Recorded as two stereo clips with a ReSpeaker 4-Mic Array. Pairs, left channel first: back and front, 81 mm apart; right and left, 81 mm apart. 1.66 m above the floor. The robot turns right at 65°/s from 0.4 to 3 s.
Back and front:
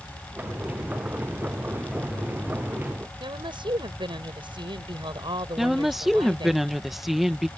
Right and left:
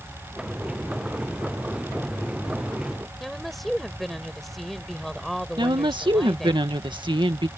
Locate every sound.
3.2 s a woman speaking: straight ahead
5.6 s a woman speaking: 85° left